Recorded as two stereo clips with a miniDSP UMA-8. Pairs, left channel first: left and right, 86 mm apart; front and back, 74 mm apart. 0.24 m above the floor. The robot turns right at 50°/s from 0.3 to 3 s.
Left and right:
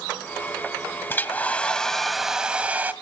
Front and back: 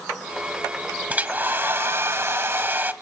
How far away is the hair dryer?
About 0.9 m.